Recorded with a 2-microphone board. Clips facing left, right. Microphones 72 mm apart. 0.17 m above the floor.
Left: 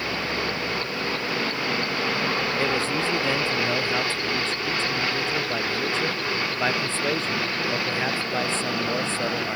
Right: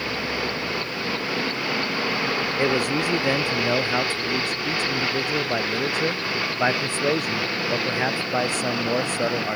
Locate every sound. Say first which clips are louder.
2.6 s a man speaking: right 2 dB; 15° right (ahead or behind)